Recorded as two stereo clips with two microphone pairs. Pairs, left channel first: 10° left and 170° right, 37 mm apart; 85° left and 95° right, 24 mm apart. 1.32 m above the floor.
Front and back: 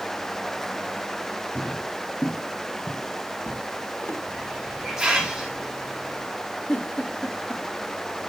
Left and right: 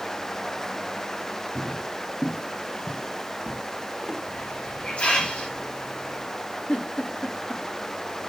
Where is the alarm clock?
No alarm clock in this recording.